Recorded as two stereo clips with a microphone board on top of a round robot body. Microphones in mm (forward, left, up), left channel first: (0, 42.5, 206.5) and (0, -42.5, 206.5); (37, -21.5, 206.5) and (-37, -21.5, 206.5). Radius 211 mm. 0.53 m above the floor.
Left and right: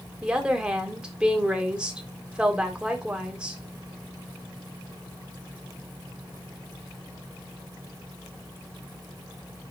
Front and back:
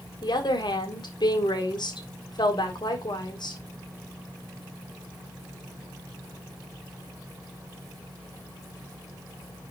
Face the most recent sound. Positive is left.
turn(degrees=-10)